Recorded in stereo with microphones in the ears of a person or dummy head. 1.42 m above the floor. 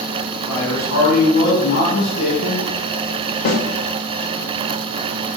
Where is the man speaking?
75° left (ahead or behind), 1.5 m.